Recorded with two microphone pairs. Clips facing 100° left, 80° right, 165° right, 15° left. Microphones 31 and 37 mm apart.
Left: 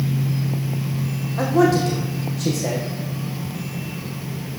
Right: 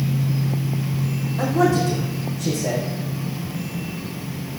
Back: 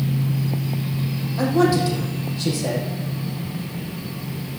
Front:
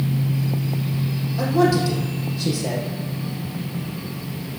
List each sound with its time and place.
1.4 s a man speaking: 125° left, 5.5 m